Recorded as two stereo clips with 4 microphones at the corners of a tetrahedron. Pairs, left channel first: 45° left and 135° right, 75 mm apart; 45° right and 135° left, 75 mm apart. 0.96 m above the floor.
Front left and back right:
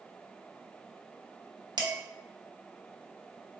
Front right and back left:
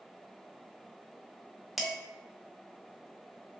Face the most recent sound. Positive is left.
turn(degrees=-135)